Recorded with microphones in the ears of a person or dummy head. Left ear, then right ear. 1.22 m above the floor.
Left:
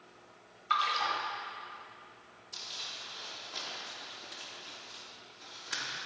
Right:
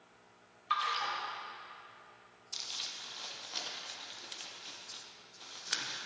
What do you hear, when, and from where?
0.7 s a splash: 5° right (ahead or behind), 1.1 m
2.5 s crumpling: 25° right (ahead or behind), 0.7 m